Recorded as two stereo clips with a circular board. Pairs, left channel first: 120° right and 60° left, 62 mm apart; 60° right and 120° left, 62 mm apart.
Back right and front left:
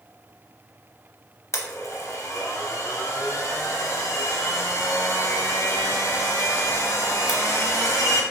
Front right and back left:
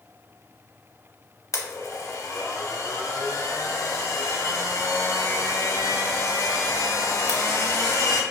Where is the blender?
90° right, 0.5 m.